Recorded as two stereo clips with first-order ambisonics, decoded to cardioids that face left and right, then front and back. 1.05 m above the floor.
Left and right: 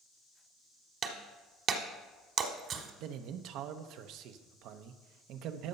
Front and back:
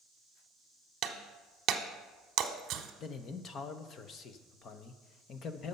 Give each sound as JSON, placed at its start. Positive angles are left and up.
{"t": 1.0, "sound": "breaking glass", "azimuth_deg": -140, "distance_m": 1.1}
{"t": 3.0, "sound": "a man speaking", "azimuth_deg": -55, "distance_m": 0.8}